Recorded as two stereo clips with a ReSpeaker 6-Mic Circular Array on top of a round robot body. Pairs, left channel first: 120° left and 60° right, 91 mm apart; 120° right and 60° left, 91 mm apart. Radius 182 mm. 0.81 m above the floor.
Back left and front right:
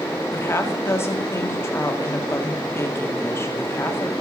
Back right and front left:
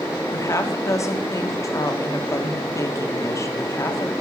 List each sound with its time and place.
0.3 s a woman speaking: straight behind, 1.9 m